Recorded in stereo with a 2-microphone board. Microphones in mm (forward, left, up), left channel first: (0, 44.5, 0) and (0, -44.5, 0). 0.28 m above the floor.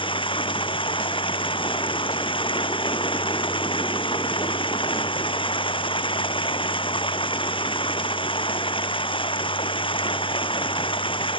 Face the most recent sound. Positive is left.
turn(degrees=75)  # may be behind; listen again after turning